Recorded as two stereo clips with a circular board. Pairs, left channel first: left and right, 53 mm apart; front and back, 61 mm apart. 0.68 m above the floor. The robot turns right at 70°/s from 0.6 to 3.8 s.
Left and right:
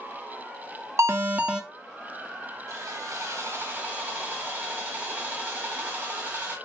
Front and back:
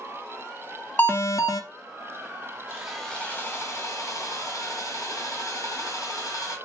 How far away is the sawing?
About 1.3 m.